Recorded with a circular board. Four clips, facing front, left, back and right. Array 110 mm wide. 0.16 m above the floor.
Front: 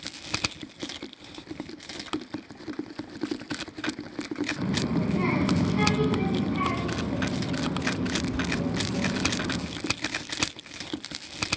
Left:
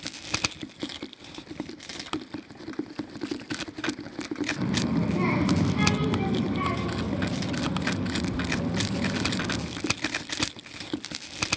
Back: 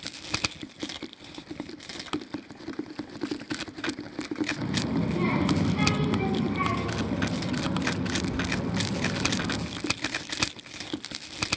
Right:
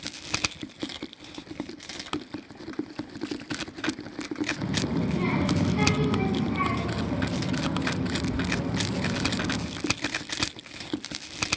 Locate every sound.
4.6 s a child speaking: 60° left, 1.2 m; by 9.6 s 110° right, 2.5 m